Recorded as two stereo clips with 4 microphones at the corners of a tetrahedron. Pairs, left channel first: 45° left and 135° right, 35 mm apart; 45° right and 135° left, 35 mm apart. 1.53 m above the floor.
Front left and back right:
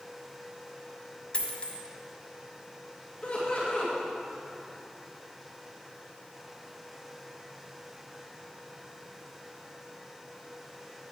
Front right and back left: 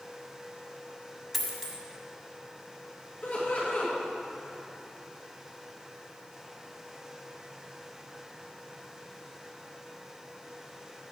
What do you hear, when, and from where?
1.3 s a dropped coin: 40° left, 1.5 m
3.2 s laughter: 5° right, 1.6 m